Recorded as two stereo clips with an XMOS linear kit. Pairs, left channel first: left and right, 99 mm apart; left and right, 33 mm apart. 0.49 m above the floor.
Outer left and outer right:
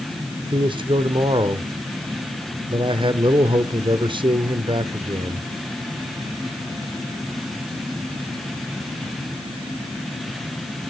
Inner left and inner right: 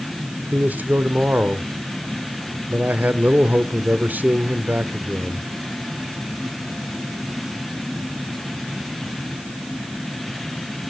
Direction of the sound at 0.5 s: 50° right (ahead or behind).